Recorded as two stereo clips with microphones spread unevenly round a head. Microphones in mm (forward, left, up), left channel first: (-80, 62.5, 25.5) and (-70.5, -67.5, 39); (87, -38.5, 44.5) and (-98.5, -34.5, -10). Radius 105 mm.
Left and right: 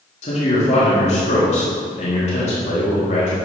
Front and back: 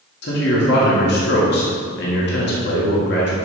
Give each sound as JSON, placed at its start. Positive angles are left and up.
{"t": 0.2, "sound": "a man speaking", "azimuth_deg": 45, "distance_m": 1.6}